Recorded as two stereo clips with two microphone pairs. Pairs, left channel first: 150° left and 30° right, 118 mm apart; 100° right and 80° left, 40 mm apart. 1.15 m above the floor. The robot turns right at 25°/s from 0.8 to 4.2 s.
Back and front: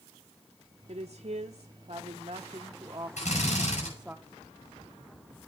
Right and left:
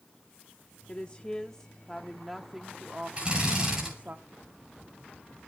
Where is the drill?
145° left, 9 m; by 3.9 s 160° left, 9 m.